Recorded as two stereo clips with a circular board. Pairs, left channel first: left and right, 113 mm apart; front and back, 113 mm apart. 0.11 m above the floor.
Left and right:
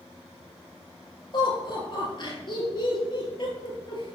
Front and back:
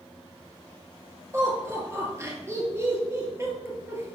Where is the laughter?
120° left, 2.5 m.